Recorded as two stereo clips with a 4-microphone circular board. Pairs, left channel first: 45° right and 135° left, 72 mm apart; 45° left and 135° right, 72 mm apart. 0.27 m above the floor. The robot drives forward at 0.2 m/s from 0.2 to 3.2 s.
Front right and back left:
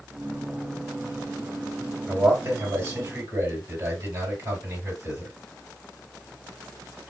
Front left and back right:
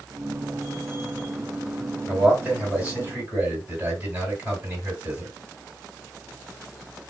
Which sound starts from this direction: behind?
A man speaking, at 2.1 s.